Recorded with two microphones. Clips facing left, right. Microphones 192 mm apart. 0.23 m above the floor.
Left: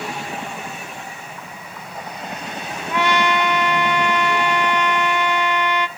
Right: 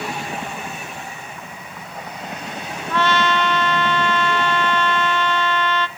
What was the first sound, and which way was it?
A trumpet, 15° left (ahead or behind).